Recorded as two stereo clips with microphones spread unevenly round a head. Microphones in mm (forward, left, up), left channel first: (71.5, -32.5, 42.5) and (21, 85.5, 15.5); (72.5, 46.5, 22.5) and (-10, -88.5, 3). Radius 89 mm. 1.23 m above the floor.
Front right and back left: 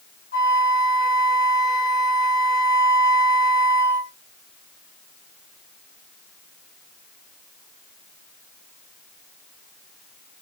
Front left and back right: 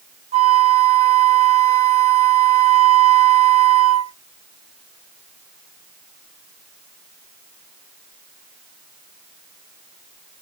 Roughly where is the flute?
Right.